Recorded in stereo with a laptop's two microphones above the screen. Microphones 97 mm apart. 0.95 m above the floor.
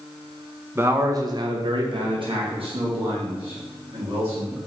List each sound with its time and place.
0.8 s a man speaking: 25° right (ahead or behind), 0.7 m; by 4.6 s 65° right (ahead or behind), 2 m